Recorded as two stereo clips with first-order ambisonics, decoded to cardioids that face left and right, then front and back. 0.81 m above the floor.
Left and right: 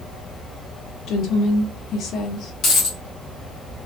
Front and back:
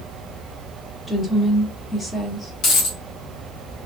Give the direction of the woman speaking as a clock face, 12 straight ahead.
9 o'clock.